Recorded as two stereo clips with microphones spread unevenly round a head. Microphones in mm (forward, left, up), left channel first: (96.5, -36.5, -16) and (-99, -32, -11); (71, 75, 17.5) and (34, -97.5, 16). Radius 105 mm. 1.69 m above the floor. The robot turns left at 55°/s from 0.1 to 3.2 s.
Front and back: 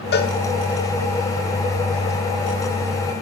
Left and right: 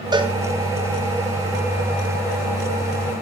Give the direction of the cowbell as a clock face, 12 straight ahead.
1 o'clock.